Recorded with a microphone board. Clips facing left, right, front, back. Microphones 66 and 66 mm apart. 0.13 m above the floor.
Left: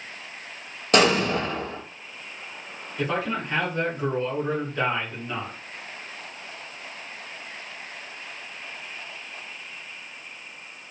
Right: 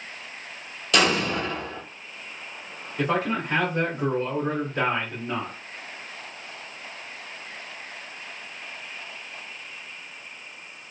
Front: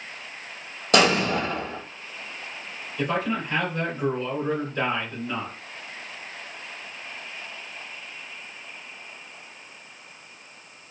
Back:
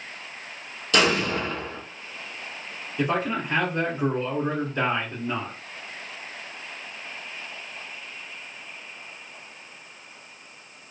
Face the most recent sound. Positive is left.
turn(degrees=-125)